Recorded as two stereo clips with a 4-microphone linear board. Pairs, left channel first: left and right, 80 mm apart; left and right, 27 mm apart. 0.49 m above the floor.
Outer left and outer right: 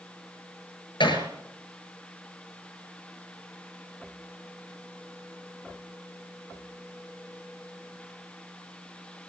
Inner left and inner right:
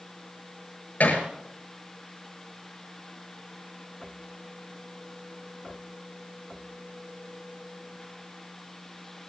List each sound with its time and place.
1.0 s hammering: 85° left, 6.5 m